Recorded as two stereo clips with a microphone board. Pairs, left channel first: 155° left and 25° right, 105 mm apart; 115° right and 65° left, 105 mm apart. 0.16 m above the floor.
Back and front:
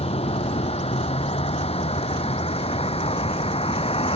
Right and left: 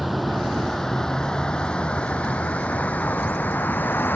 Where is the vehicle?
155° left; by 4.2 s 175° left.